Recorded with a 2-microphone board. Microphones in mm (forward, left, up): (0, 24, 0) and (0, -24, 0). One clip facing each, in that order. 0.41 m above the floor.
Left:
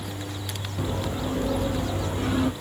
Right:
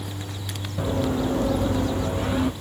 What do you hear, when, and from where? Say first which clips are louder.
0.8 s running footsteps: right 6 dB; 45° right (ahead or behind), 1.3 m; by 2.5 s 25° right (ahead or behind), 1.7 m